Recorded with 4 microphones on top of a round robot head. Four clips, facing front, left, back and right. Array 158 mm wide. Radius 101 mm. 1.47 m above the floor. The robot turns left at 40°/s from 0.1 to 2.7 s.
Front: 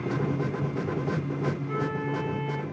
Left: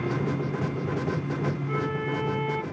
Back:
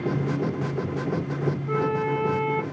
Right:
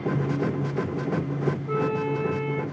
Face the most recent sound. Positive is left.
turn(degrees=175)